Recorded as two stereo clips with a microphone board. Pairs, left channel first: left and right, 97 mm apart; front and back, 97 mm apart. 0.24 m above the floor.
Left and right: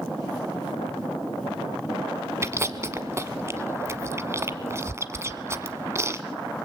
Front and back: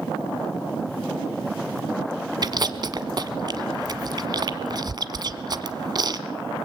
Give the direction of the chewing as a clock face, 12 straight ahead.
5 o'clock.